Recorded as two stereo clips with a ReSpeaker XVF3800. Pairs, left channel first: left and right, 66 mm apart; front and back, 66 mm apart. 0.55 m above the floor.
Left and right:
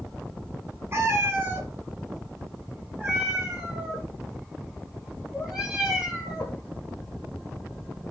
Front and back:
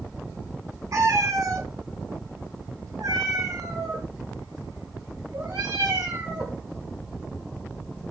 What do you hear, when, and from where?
0.9 s a cat meowing: 140° right, 1.9 m; by 6.6 s 175° right, 5 m